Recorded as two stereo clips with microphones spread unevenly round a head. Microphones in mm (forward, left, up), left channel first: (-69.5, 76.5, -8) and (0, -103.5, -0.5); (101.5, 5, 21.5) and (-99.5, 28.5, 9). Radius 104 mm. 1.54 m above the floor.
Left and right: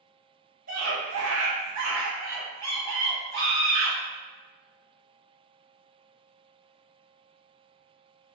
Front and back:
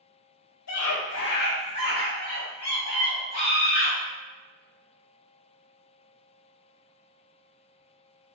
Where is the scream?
15° right, 0.7 m; by 4.0 s 105° right, 1.8 m.